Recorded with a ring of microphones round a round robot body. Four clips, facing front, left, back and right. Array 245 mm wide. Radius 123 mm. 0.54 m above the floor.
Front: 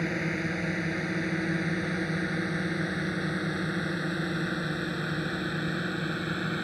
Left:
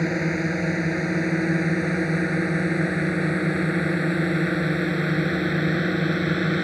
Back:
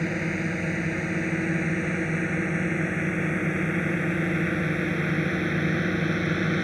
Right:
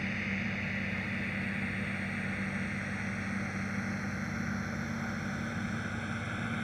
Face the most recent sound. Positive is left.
turn(degrees=110)